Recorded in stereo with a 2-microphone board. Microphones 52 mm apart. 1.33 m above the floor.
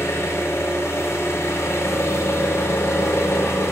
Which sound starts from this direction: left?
An engine running, at 0.0 s.